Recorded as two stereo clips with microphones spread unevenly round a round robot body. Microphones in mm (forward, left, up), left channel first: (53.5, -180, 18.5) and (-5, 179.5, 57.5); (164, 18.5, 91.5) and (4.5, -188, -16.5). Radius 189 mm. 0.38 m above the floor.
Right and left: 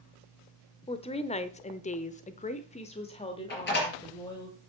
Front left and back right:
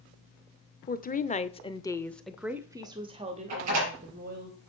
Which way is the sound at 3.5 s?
145° right.